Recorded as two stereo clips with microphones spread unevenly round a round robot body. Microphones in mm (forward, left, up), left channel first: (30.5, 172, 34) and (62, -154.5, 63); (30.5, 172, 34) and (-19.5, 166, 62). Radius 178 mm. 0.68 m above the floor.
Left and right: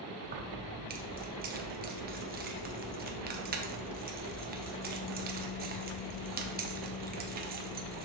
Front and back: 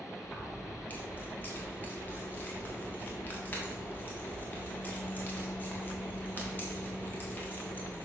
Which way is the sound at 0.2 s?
20° right.